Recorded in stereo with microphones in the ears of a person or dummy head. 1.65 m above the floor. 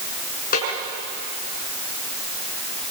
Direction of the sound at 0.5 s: 45° left (ahead or behind).